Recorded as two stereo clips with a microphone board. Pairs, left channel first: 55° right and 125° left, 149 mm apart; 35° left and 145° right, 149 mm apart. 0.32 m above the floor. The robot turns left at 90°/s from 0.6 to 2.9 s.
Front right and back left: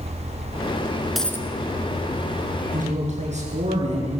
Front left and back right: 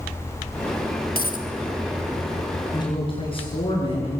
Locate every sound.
1.1 s a dropped coin: 35° left, 2 m; by 1.5 s 10° left, 2 m
2.7 s a man speaking: 105° left, 7 m; by 4.2 s 85° left, 7 m